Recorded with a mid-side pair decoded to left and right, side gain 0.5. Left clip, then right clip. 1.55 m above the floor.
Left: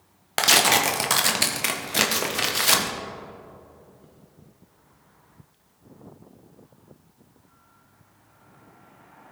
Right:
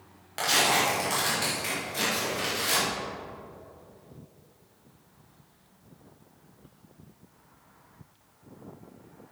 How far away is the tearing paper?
About 1.3 m.